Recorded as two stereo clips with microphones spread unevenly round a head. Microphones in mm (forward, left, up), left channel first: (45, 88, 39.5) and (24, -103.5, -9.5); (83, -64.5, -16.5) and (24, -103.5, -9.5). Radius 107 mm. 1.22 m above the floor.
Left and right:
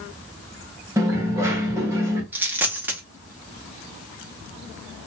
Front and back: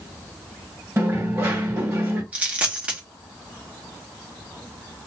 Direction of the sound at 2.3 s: 165° left.